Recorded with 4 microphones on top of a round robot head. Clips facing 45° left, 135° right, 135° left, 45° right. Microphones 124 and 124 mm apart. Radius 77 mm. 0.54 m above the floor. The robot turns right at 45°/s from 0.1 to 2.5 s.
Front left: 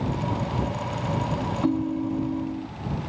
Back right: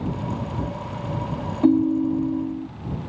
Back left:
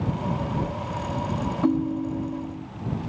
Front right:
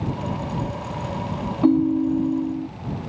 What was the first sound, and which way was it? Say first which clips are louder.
A ringtone: back right 8 dB, front right 7 dB; 105° right.